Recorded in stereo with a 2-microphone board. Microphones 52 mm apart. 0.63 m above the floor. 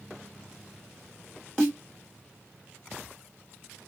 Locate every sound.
1.6 s a snare drum: 15° left (ahead or behind), 1.5 m